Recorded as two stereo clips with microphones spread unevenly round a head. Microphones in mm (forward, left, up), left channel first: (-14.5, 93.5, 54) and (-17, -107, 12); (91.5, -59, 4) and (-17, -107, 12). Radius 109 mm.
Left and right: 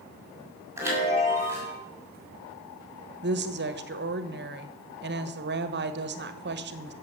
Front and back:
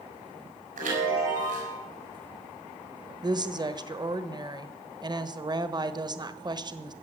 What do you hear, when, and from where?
0.8 s a chime: 170° right, 6 m
3.2 s a woman speaking: 100° right, 1.3 m